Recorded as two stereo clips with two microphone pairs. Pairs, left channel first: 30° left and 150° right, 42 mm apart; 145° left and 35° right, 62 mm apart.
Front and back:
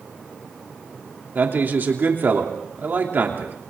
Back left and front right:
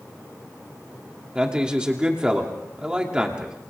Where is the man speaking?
110° right, 3 m.